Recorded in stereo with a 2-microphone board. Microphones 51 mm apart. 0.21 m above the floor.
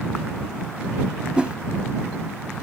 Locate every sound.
1.4 s a whoosh: 20° right (ahead or behind)